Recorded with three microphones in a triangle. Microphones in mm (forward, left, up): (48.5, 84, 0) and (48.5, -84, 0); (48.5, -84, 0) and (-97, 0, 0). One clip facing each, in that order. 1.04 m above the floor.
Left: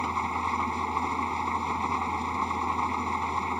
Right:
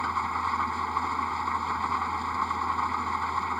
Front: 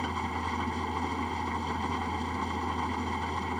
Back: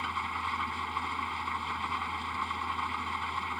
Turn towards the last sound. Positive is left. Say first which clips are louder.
# left 1 dB, front 5 dB
turn(degrees=20)